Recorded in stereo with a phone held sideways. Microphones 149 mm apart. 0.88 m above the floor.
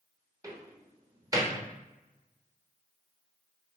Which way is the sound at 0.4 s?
20° right (ahead or behind).